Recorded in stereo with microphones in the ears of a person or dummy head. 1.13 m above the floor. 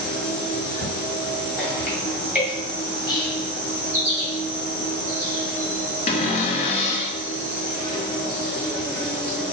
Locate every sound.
0.0 s an insect: 10° right (ahead or behind), 2.0 m
3.1 s whispering: 25° left (ahead or behind), 1.4 m
6.1 s a cupboard door: 30° left (ahead or behind), 0.5 m